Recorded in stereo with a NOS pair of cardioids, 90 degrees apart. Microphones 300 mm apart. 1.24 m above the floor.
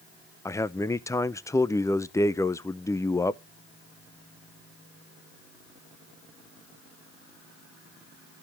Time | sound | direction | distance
0.5 | a man speaking | 10° left | 0.6 m